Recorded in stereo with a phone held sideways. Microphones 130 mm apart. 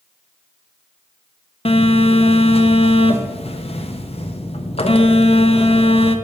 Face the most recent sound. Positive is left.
turn(degrees=45)  # may be behind; listen again after turning